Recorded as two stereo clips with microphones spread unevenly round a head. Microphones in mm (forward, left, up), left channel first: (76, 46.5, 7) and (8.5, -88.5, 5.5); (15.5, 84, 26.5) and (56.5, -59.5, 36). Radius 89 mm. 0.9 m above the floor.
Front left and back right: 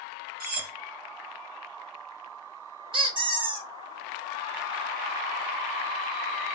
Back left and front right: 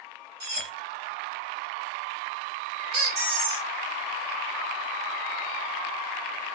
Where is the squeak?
60° right, 0.9 m.